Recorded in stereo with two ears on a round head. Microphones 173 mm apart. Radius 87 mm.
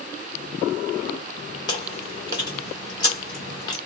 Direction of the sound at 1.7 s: 20° left (ahead or behind).